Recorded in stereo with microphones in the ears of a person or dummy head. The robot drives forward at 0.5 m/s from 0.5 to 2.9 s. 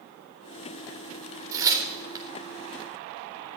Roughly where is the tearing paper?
Centre.